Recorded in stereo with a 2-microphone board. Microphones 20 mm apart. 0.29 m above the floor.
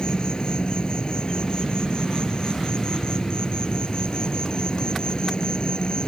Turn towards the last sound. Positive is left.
turn(degrees=45)  # may be behind; listen again after turning